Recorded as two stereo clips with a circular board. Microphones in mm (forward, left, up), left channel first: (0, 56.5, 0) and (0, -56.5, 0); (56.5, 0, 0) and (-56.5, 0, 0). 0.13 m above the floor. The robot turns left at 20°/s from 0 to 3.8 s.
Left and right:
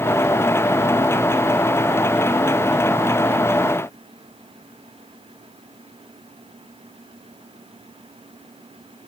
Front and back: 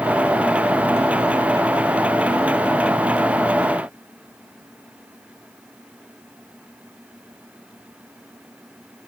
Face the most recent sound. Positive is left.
No sound to turn to.